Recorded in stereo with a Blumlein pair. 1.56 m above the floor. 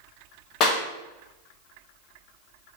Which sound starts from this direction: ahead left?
A clap, at 0.6 s.